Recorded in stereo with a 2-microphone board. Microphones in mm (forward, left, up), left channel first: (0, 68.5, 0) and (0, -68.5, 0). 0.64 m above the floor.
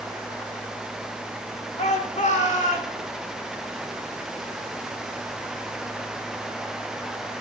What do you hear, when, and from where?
1.8 s a shout: 50° left (ahead or behind), 1.7 m; by 3.0 s 65° left (ahead or behind), 3 m